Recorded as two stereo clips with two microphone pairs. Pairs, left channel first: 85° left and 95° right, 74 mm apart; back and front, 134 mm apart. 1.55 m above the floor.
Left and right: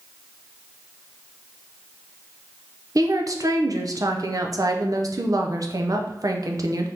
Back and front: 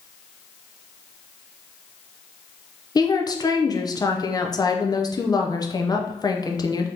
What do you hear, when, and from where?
3.0 s a woman speaking: 125° right, 0.5 m